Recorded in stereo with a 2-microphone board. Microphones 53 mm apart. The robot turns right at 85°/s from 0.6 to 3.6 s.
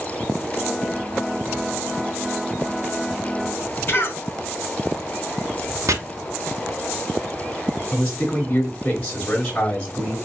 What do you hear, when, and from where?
3.9 s a cough: 45° left (ahead or behind), 1.5 m
5.9 s chopping: 70° right (ahead or behind), 0.6 m
7.9 s a man speaking: 25° left (ahead or behind), 1.8 m